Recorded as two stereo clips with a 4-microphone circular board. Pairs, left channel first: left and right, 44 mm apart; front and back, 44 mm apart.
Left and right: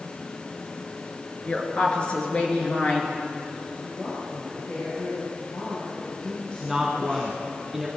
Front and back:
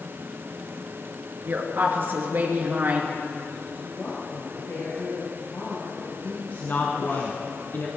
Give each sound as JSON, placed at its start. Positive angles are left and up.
{"t": 1.4, "sound": "a woman speaking", "azimuth_deg": 150, "distance_m": 3.0}
{"t": 3.8, "sound": "a woman speaking", "azimuth_deg": 30, "distance_m": 6.0}
{"t": 6.6, "sound": "a woman speaking", "azimuth_deg": -10, "distance_m": 1.6}